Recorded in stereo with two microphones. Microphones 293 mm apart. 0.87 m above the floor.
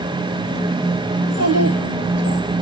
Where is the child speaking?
80° right, 8 m.